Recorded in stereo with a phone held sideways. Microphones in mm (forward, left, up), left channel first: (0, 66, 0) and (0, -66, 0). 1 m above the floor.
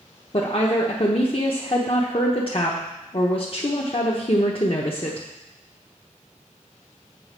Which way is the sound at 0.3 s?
45° left (ahead or behind).